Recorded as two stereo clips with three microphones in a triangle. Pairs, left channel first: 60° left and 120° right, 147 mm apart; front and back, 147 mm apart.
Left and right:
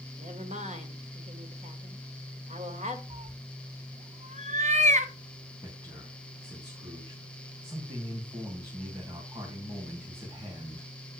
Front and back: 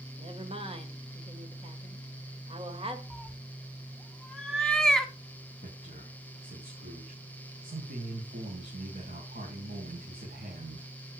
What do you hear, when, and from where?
0.2 s a woman speaking: 140° right, 2.5 m
3.1 s a cat meowing: 85° right, 1.1 m
5.6 s a man speaking: 175° left, 4 m